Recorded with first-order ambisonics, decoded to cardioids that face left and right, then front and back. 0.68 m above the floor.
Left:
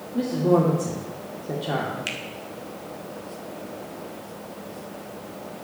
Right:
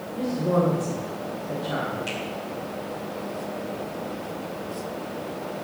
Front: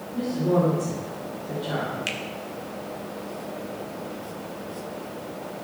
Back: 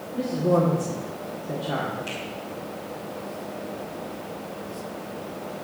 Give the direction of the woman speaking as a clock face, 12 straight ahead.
8 o'clock.